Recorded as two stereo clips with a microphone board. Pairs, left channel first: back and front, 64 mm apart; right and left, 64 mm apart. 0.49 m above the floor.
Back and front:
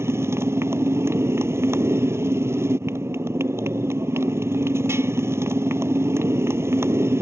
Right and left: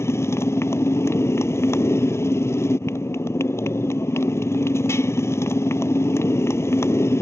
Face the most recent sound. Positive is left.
turn(degrees=-45)